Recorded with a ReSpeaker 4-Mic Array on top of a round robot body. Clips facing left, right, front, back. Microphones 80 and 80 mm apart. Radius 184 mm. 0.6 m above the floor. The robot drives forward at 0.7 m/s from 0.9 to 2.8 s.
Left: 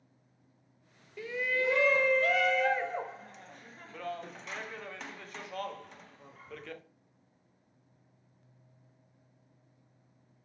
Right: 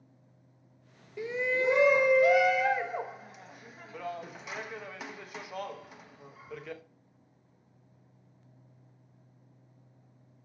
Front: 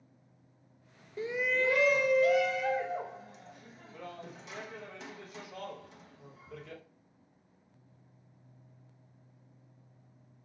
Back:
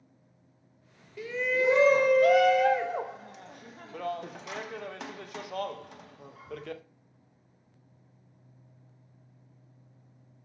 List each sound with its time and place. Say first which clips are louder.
1.2 s a shout: right 3 dB, back 3 dB; 30° right, 0.6 m; by 6.8 s 170° right, 1.1 m